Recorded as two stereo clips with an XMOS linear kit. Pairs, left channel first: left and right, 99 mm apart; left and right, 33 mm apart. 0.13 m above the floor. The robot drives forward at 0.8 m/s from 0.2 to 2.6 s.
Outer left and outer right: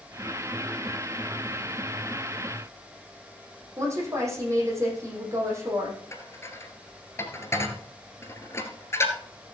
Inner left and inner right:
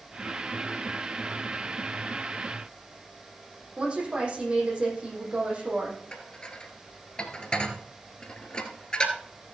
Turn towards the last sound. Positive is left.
turn(degrees=25)  # may be behind; listen again after turning